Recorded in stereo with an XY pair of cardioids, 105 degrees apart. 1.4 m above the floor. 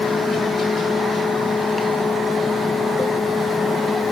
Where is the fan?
10° left, 3 m.